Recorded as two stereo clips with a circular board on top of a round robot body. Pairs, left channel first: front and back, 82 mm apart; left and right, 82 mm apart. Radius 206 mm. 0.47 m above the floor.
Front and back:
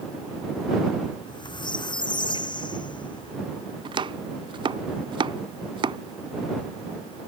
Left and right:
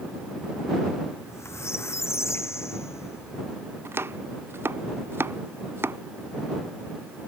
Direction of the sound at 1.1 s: 30° left.